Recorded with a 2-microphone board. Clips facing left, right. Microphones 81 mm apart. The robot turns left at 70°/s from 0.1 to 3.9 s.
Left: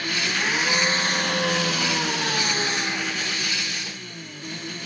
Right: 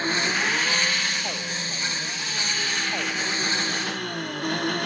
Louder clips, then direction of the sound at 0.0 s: Right 2 dB; 150° right.